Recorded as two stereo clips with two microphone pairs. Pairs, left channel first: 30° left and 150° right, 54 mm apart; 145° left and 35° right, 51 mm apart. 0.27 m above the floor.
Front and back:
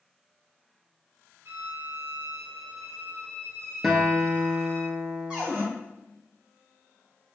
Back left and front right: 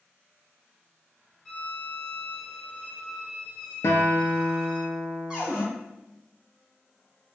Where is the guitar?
120° left, 0.7 m.